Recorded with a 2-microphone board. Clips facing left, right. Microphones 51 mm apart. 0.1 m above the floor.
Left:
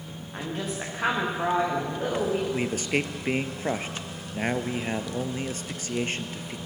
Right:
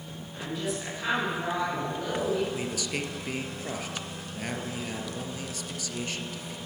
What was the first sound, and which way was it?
A woman speaking, 45° left (ahead or behind).